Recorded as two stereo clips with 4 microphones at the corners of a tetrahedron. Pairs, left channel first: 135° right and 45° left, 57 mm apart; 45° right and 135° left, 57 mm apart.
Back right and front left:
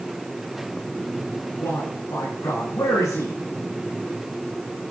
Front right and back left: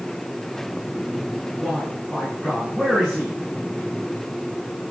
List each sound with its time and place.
1.6 s a man speaking: 135° right, 8 m